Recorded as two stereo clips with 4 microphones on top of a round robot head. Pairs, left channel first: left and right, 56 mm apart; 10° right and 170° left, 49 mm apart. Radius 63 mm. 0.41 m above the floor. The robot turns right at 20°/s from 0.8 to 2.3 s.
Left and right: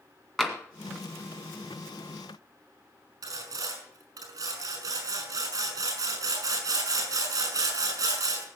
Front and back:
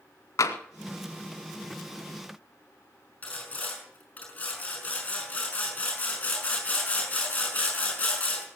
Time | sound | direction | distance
0.4 | tapping | 5° left | 1.9 m
3.2 | sawing | 75° right | 5 m